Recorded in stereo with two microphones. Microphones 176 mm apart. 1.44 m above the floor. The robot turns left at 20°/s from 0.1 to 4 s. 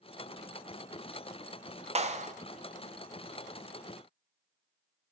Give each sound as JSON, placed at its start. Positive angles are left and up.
{"t": 1.9, "sound": "a clap", "side_deg": -40, "distance_m": 0.6}